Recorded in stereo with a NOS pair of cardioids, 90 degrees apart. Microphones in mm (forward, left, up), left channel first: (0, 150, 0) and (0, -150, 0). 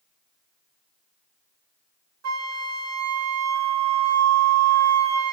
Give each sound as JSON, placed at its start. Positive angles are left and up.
{"t": 2.2, "sound": "a flute", "azimuth_deg": -65, "distance_m": 1.0}